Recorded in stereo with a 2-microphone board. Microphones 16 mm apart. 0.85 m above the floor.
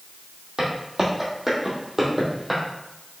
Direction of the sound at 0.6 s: 35° right (ahead or behind).